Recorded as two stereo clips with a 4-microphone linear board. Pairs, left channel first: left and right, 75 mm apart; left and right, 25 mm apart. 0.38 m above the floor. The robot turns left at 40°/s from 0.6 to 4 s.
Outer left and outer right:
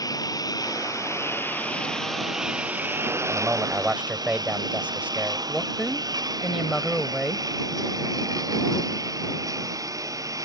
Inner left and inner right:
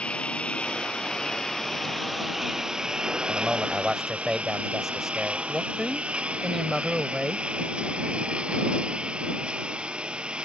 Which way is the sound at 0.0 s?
55° left (ahead or behind).